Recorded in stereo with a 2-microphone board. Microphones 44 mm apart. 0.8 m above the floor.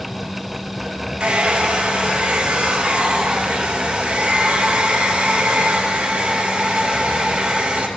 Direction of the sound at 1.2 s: 25° right (ahead or behind).